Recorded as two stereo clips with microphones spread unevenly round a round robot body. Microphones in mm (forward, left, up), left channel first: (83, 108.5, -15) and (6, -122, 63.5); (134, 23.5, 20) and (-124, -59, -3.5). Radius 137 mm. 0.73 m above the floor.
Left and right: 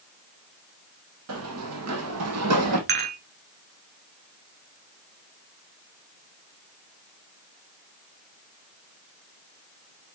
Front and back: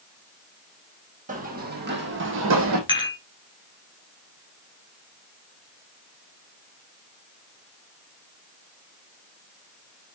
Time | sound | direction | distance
1.3 | running footsteps | 100° right | 2 m
2.9 | dishes clattering | 55° right | 4 m